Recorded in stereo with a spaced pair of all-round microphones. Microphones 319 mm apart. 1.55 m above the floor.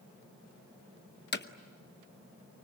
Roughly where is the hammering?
Left.